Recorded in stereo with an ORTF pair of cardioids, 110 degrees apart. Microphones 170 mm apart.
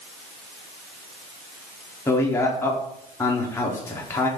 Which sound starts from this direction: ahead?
A man speaking, at 2.1 s.